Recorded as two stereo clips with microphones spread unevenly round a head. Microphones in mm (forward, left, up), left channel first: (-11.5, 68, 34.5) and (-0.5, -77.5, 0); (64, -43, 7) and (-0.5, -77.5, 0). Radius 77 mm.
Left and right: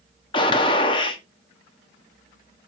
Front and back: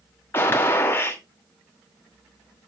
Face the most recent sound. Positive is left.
turn(degrees=75)